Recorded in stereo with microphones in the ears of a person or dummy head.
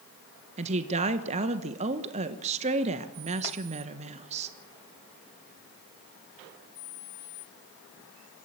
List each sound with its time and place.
0.6 s a woman speaking: 35° right (ahead or behind), 1.2 m